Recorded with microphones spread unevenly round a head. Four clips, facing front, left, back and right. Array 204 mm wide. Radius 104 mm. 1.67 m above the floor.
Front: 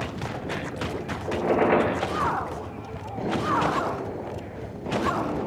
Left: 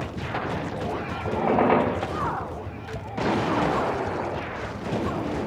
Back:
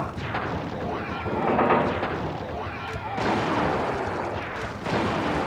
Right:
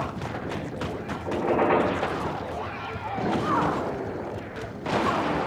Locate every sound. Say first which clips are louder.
1.2 s a squeak: left 2 dB, even; 105° left, 4.5 m